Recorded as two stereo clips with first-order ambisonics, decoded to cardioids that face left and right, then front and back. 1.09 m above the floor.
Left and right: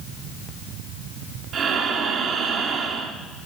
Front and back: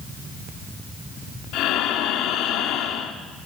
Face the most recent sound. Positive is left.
turn(degrees=-35)